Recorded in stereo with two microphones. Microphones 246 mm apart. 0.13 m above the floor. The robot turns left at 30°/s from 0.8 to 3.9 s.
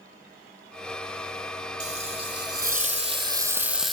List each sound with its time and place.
1.8 s frying: 115° right, 0.7 m; by 3.9 s straight behind, 0.7 m